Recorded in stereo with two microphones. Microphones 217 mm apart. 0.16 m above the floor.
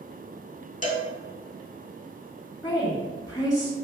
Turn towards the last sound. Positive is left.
turn(degrees=20)  # may be behind; listen again after turning